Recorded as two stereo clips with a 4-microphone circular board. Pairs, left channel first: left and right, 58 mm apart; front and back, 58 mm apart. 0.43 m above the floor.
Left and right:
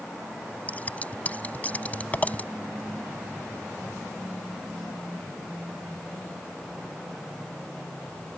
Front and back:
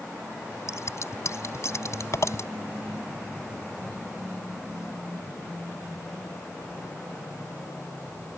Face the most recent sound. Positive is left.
turn(degrees=25)